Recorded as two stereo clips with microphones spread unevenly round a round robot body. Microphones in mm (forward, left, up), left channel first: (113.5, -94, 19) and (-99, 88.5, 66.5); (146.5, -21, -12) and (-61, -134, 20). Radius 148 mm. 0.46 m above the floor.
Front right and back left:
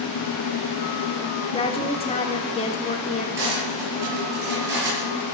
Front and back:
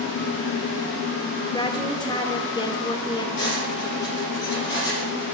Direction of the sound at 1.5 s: 15° right.